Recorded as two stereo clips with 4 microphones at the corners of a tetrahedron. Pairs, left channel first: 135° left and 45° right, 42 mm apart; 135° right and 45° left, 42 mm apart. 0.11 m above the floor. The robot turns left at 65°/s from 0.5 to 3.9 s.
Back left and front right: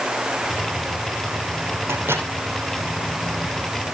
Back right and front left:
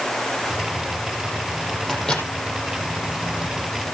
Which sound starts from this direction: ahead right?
A microwave, at 1.9 s.